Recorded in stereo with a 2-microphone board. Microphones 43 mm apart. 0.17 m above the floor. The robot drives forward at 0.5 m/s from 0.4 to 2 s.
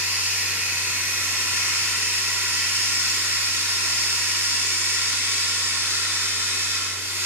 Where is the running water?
40° right (ahead or behind), 1.0 m; by 7.3 s 65° right (ahead or behind), 0.7 m.